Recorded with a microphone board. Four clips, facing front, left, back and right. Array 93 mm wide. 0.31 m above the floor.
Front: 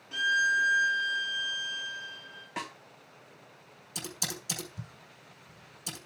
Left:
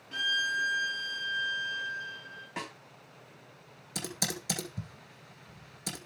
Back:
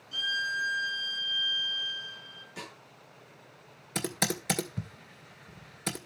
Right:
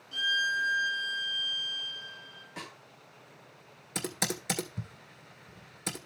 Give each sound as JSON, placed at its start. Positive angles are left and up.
{"t": 0.1, "sound": "a violin", "azimuth_deg": 45, "distance_m": 2.5}
{"t": 2.6, "sound": "a snare drum", "azimuth_deg": 30, "distance_m": 2.5}
{"t": 4.0, "sound": "typing on a keyboard", "azimuth_deg": -155, "distance_m": 2.0}